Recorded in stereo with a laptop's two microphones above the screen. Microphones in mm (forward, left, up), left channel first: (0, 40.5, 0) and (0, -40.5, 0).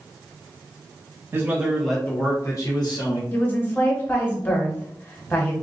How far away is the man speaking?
About 1.0 m.